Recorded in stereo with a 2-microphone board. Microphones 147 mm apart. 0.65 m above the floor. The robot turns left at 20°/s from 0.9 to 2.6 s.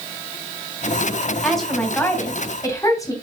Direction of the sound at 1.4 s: Centre (ahead or behind).